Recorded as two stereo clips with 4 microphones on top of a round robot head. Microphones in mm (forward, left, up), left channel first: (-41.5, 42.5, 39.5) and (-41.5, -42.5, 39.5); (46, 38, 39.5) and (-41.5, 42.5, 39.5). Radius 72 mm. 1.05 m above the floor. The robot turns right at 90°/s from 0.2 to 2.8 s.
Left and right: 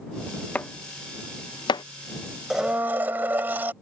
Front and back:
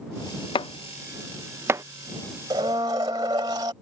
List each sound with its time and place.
0.6 s chopping: 15° left; by 1.8 s 130° left
2.5 s a blender: 170° right; by 3.7 s 145° right